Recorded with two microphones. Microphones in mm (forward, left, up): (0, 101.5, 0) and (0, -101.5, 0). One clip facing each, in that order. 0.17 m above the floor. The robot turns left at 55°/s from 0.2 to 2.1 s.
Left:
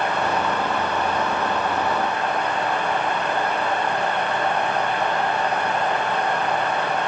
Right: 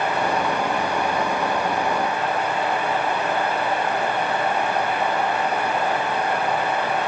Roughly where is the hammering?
No hammering in this recording.